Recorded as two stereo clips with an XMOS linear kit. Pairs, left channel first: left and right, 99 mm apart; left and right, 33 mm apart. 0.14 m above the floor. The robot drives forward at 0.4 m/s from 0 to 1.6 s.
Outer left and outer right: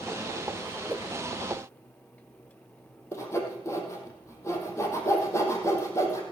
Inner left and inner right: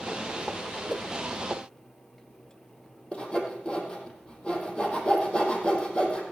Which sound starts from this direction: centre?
A whoosh, at 0.9 s.